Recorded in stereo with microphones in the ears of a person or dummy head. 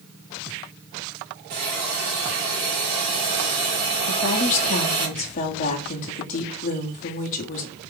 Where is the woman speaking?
45° left (ahead or behind), 1.0 m.